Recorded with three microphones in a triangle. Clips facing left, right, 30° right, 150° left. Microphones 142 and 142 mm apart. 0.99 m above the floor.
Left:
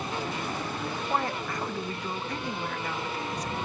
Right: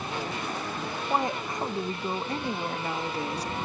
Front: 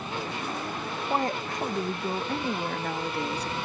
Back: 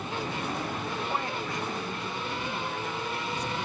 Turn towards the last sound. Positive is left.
turn(degrees=-35)